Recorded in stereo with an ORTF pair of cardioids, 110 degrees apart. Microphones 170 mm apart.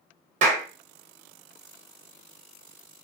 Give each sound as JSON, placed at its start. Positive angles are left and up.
{"t": 0.4, "sound": "a clap", "azimuth_deg": -45, "distance_m": 1.0}